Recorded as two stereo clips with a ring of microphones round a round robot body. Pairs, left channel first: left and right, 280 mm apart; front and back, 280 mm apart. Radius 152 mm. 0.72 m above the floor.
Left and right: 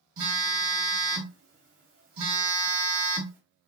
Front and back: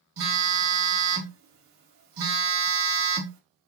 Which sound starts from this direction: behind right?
A phone buzzing, at 0.2 s.